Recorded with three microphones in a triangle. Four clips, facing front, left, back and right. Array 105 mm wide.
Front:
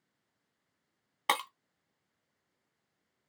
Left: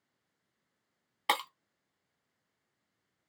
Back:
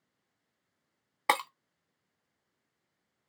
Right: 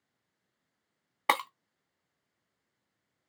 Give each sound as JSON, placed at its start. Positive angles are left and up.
{"t": 1.3, "sound": "breaking glass", "azimuth_deg": -110, "distance_m": 0.6}